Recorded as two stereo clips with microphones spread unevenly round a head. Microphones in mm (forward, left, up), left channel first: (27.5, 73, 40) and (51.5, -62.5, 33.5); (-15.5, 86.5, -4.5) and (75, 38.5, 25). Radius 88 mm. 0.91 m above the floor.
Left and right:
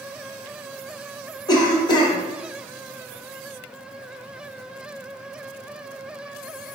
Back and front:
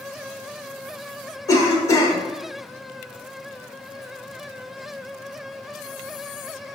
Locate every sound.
1.5 s a cough: 150° left, 0.9 m